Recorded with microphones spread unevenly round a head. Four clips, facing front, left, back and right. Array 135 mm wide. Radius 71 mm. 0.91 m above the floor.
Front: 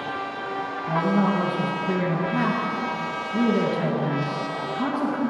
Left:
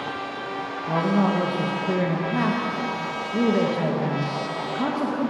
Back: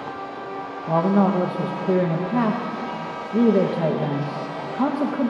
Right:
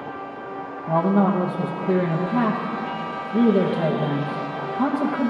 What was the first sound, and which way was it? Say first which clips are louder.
A man speaking: right 3 dB, back 4 dB; 160° right.